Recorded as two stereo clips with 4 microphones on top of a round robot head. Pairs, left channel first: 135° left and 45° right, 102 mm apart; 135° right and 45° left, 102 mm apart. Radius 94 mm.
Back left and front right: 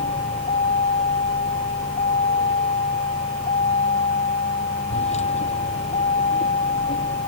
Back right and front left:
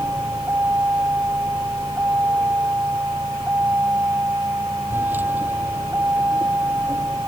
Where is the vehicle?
120° left.